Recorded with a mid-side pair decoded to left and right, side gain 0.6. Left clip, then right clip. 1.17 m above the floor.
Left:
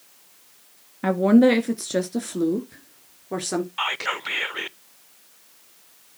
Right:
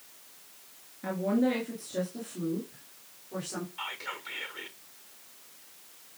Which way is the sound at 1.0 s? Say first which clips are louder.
Left 12 dB; 65° left.